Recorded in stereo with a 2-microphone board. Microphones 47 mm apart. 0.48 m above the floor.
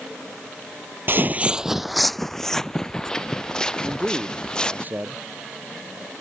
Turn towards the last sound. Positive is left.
turn(degrees=-40)  # may be behind; listen again after turning